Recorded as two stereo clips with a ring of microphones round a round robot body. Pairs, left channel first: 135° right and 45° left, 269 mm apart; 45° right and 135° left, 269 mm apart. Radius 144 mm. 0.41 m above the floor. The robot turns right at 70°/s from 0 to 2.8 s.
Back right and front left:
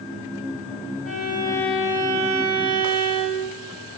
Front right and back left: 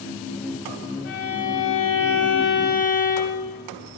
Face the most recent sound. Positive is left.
turn(degrees=30)